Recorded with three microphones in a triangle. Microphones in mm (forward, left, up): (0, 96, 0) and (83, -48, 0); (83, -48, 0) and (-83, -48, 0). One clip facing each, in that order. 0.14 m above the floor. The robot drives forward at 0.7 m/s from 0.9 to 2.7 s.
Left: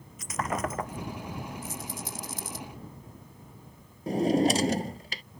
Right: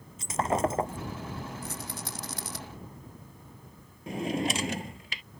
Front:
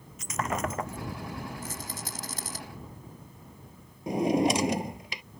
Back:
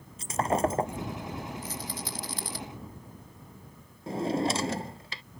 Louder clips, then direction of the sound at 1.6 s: Left 1 dB, back 1 dB; 40° right.